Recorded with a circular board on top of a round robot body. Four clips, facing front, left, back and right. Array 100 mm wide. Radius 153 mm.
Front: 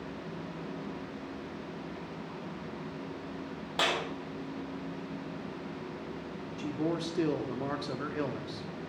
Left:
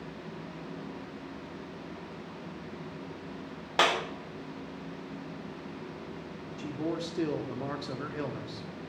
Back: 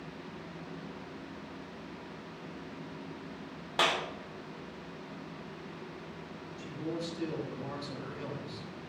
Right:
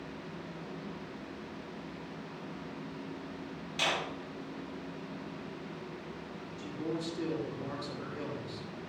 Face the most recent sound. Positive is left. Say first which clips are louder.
# left 3 dB, front 5 dB
turn(degrees=30)